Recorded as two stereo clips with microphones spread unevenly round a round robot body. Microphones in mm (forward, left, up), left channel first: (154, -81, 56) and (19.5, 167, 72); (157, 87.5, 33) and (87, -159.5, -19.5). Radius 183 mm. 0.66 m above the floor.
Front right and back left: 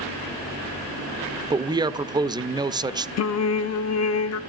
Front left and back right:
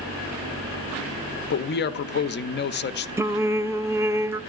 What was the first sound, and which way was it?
A man speaking, 50° left.